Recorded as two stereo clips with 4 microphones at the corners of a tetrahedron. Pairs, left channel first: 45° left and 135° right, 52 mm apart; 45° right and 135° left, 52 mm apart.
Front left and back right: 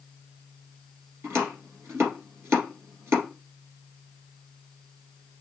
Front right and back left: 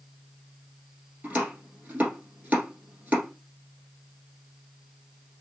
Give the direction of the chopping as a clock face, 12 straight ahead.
6 o'clock.